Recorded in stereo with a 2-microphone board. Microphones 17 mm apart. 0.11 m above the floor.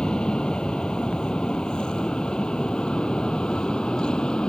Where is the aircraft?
65° left (ahead or behind).